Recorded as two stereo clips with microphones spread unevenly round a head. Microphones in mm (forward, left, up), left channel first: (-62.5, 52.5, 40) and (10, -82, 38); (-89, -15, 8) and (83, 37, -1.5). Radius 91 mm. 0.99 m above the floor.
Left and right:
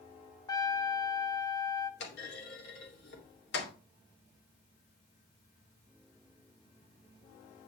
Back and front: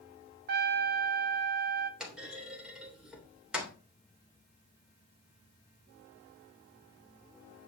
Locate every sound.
0.5 s a trumpet: 50° left, 0.8 m
2.0 s a clunk: 105° left, 3 m